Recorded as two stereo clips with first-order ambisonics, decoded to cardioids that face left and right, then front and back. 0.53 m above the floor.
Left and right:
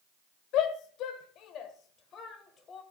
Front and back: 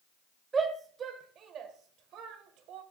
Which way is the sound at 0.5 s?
110° left.